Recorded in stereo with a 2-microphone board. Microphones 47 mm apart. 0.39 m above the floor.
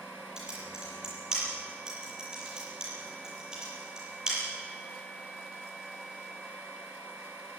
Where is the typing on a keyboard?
15° right (ahead or behind), 8.5 m.